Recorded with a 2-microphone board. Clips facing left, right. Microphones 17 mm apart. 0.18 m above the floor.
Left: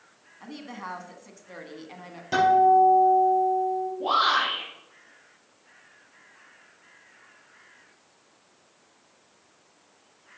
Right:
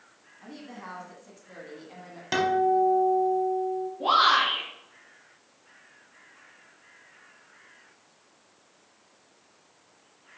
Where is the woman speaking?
30° left (ahead or behind), 1.4 m.